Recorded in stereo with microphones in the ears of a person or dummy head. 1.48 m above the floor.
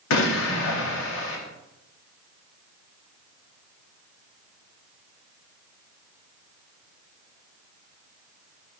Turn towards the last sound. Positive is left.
turn(degrees=70)  # may be behind; listen again after turning